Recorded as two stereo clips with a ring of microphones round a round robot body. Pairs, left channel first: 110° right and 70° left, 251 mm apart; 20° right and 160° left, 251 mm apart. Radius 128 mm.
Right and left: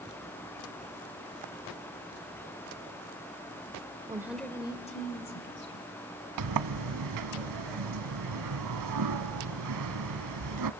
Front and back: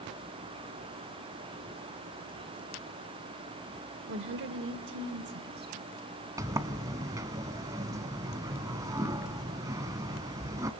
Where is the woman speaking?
135° left, 1.5 m; by 5.9 s 150° right, 3 m.